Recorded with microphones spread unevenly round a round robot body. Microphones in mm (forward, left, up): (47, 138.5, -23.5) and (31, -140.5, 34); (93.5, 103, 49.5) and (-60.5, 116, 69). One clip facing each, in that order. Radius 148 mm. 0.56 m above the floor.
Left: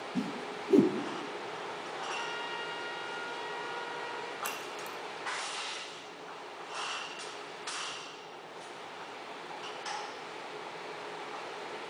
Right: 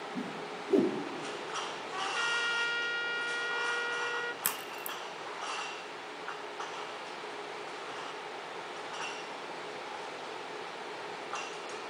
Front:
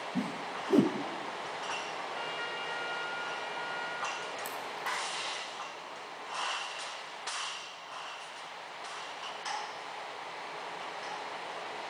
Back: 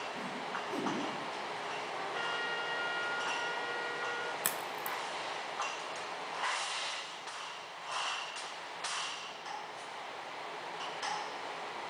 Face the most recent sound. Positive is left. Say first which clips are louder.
# left 1 dB, front 1 dB
turn(degrees=-155)